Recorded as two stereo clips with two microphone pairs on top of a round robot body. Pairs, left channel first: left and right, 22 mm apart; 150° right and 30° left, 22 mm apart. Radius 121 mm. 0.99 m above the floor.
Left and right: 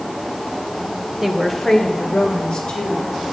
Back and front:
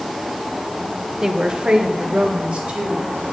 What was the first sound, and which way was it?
A woman speaking, 10° right.